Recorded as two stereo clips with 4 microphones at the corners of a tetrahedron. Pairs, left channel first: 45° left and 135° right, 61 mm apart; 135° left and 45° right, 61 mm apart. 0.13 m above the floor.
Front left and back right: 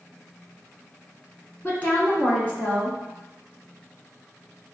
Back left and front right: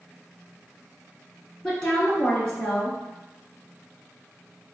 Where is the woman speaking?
75° left, 1.2 m.